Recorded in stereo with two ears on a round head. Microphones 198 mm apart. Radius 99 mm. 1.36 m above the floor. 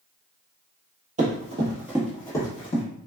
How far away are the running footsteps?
About 1.6 m.